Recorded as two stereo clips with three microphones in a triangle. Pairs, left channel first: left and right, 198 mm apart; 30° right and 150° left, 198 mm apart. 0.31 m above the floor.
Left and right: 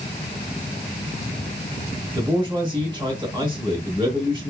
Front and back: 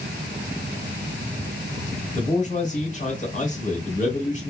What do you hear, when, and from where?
2.1 s a man speaking: 40° right, 1.0 m